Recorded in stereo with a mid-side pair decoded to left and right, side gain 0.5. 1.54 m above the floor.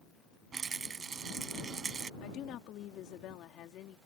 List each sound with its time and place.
0.5 s a rattle: 40° right
2.2 s a woman speaking: 70° left